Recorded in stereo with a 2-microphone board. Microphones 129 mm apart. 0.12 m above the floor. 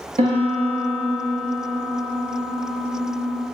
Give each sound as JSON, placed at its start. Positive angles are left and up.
{"t": 0.2, "sound": "a piano", "side_deg": -60, "distance_m": 0.9}